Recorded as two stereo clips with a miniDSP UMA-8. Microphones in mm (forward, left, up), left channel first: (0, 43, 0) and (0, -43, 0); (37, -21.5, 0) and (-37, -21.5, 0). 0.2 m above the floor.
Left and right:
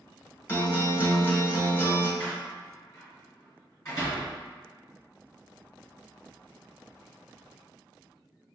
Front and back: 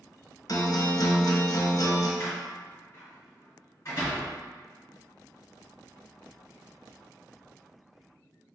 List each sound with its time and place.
0.5 s a guitar: 30° left, 0.8 m
2.2 s a door slam: 40° left, 1.9 m